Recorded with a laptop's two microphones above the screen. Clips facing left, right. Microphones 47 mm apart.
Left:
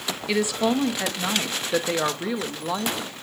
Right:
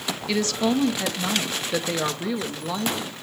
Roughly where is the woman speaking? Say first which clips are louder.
Left 1 dB; centre.